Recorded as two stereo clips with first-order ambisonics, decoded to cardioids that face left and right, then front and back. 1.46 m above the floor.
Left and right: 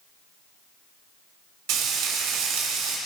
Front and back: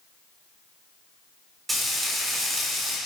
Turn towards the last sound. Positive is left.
turn(degrees=-105)